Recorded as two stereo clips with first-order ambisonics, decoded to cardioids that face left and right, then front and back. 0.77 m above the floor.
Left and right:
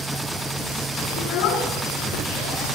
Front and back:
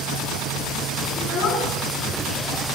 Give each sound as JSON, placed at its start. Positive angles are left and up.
{"t": 1.2, "sound": "a child speaking", "azimuth_deg": 40, "distance_m": 5.0}